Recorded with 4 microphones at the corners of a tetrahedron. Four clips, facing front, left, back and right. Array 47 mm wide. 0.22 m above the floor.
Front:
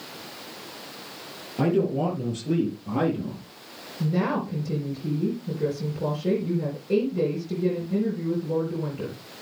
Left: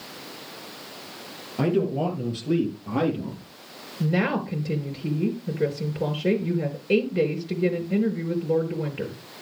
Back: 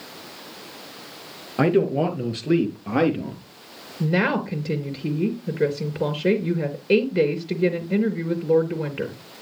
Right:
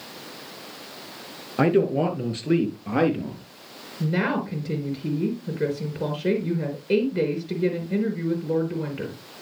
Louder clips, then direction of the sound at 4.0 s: Even, back 4 dB; straight behind.